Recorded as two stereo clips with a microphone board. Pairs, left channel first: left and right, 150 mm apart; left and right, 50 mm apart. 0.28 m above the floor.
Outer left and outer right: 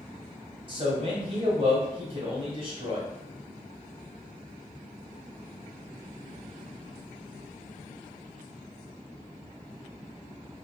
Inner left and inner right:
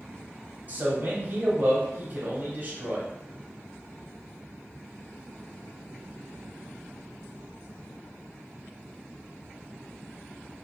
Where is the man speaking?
35° right (ahead or behind), 1.3 m.